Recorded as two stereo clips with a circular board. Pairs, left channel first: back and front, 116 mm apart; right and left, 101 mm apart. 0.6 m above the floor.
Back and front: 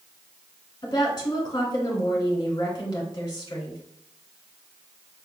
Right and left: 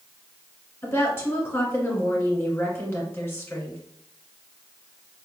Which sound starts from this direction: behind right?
A woman speaking, at 0.8 s.